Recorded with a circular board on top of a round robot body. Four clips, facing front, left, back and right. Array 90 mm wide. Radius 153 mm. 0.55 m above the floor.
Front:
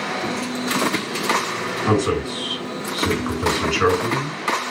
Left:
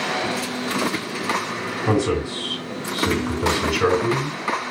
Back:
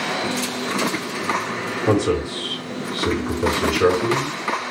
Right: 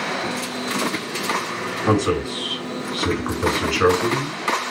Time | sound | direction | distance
1.9 | a man speaking | 55° right | 2 m